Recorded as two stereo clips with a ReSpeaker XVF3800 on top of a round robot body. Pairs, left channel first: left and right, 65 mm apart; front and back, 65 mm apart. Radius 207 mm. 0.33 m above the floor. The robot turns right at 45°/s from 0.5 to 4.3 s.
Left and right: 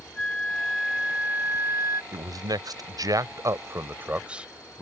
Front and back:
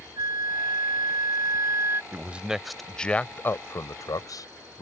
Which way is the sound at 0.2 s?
165° left.